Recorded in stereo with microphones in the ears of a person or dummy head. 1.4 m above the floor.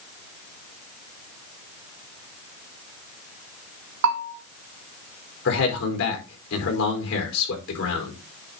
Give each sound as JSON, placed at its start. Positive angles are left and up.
{"t": 4.0, "sound": "a bell", "side_deg": -80, "distance_m": 1.6}
{"t": 5.5, "sound": "a man speaking", "side_deg": 90, "distance_m": 4.5}